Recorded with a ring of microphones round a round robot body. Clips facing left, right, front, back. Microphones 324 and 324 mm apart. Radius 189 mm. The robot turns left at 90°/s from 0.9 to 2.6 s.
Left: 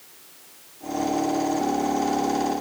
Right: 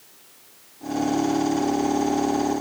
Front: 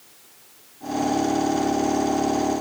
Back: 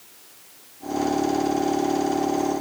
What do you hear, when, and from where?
Only background noise.